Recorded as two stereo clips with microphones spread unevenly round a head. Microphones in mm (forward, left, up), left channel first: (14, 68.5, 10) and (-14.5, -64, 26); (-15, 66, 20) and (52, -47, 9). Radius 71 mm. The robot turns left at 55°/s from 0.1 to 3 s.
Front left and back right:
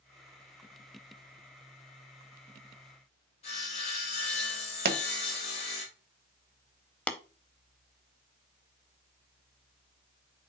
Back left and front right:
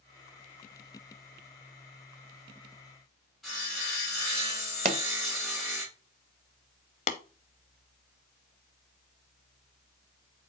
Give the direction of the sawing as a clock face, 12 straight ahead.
11 o'clock.